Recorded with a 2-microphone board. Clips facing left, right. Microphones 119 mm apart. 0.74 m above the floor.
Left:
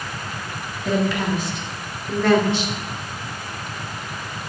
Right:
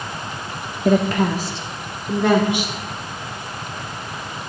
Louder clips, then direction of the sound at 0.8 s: Right 4 dB; 50° right (ahead or behind).